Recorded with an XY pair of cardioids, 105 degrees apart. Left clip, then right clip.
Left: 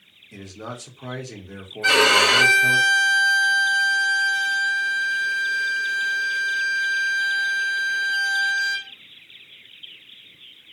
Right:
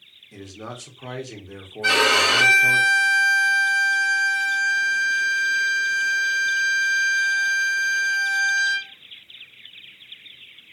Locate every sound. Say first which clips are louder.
0.3 s a man speaking: left 1 dB; straight ahead, 1.0 m
1.8 s a violin: left 2 dB; 20° left, 1.2 m